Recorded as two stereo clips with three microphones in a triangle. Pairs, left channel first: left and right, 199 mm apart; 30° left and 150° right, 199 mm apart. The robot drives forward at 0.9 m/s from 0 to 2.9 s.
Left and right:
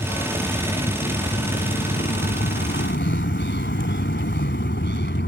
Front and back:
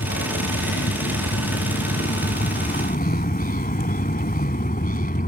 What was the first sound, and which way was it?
A vehicle, 25° left.